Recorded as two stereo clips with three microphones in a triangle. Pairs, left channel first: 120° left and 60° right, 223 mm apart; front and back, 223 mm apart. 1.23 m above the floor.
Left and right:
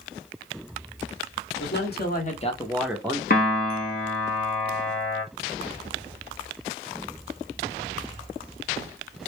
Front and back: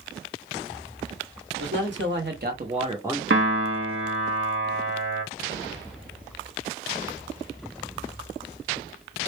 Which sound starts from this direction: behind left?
A man speaking, at 1.6 s.